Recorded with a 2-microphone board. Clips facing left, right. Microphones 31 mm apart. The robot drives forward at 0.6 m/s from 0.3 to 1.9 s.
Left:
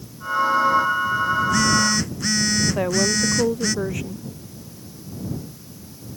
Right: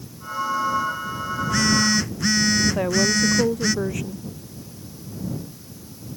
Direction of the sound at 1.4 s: 5° right (ahead or behind).